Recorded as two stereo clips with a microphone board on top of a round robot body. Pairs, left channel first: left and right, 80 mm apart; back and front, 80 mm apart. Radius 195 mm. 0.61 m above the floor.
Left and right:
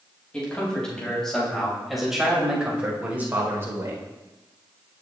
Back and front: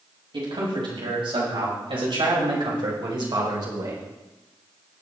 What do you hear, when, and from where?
0.3 s a man speaking: 15° left, 7 m; by 4.1 s 40° right, 4 m